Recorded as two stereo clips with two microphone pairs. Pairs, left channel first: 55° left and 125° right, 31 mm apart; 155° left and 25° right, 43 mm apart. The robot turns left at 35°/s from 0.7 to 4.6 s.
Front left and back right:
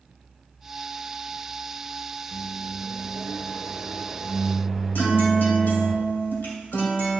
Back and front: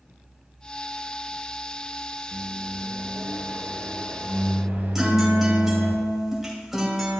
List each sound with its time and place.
2.3 s a microwave: 40° left, 1.6 m; by 6.0 s 40° right, 1.6 m
5.0 s a guitar: 55° left, 2 m